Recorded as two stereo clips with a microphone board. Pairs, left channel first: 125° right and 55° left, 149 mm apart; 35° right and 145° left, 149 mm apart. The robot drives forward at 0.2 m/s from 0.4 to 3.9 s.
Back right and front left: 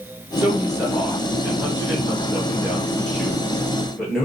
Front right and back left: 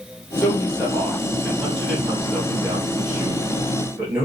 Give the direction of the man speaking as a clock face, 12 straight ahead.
11 o'clock.